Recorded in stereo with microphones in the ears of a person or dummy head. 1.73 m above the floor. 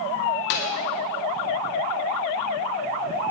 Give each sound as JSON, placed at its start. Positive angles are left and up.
{"t": 0.5, "sound": "a clap", "side_deg": 60, "distance_m": 1.6}